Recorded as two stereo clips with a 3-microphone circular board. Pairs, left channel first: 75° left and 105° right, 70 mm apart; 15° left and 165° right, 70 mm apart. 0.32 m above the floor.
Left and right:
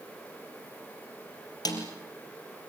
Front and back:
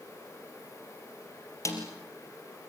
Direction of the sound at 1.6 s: 55° left.